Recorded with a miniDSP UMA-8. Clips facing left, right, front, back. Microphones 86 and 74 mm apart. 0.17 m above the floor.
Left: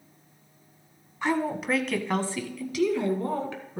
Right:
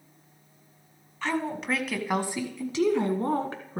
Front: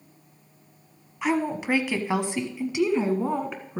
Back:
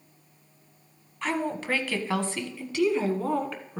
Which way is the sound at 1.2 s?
50° left.